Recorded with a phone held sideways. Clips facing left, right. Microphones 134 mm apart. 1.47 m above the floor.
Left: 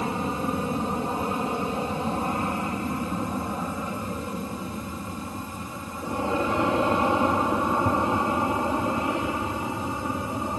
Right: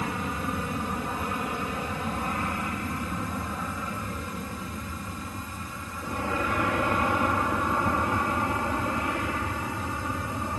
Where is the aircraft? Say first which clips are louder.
Left 4 dB; 30° left (ahead or behind); by 10.6 s 20° left (ahead or behind).